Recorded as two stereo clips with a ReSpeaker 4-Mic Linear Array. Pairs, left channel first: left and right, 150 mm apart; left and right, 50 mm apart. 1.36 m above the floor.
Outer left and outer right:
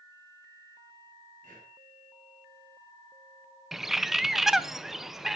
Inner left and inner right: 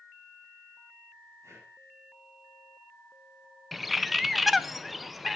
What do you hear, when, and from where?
1.4 s breathing: 65° right (ahead or behind), 7.5 m
3.7 s a bird: centre (ahead or behind), 0.6 m